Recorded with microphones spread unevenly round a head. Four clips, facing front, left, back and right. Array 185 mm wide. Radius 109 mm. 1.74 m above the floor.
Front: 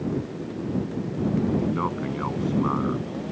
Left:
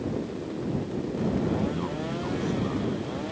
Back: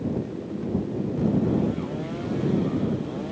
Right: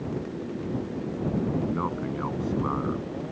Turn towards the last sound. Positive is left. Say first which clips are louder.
# right 1 dB, front 2 dB
turn(degrees=-20)